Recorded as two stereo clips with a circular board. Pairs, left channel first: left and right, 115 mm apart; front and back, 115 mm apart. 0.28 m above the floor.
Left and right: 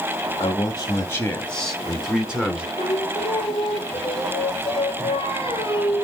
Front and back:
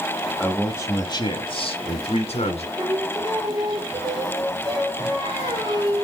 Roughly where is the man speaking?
Left.